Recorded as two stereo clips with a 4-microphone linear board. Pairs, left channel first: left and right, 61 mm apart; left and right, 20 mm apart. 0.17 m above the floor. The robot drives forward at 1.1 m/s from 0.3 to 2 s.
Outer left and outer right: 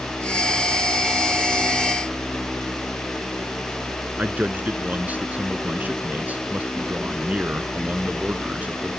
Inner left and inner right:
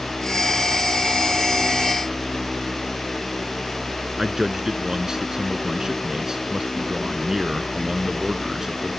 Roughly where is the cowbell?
I don't hear a cowbell.